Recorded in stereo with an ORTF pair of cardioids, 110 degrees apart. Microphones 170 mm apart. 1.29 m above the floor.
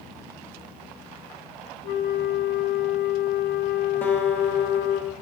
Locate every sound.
1.8 s a flute: 65° left, 0.9 m
4.0 s a guitar: 10° left, 1.1 m